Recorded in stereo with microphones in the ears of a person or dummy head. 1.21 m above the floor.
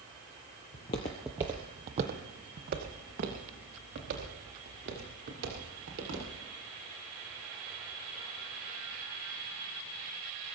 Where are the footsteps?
30° left (ahead or behind), 1.3 m; by 6.3 s 60° right (ahead or behind), 7.5 m.